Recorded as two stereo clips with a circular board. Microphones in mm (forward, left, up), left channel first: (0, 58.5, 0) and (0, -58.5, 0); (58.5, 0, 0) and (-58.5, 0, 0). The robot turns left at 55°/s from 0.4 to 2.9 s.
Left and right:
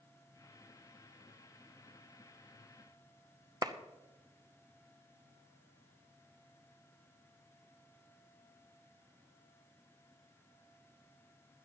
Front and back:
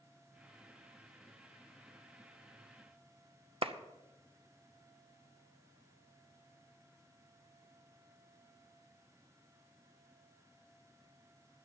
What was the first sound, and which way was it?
A clap, 145° right.